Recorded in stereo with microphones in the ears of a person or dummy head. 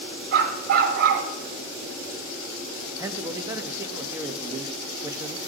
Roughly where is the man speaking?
Centre.